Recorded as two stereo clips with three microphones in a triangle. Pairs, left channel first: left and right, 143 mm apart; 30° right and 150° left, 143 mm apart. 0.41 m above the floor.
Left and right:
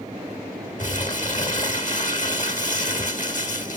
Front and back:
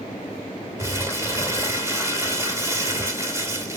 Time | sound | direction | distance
0.8 | crumpling | 80° left | 2.5 m